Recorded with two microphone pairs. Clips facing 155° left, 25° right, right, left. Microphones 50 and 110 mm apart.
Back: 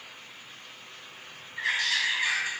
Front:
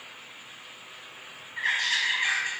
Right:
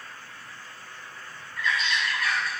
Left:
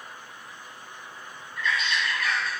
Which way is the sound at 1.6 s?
50° right.